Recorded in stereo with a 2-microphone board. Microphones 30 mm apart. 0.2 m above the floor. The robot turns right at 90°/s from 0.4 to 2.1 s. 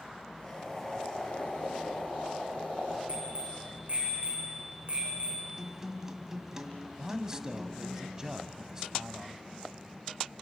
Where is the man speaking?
20° right (ahead or behind), 1.0 m.